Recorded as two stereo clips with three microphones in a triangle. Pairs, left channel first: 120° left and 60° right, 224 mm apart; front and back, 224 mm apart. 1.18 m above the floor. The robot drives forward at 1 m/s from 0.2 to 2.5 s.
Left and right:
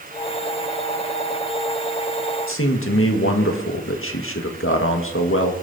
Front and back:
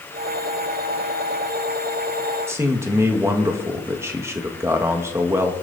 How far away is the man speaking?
About 1.9 m.